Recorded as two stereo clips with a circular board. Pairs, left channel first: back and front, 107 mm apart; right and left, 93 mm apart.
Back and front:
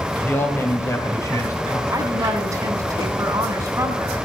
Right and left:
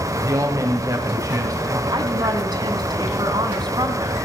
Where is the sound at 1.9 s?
55° left, 3 m.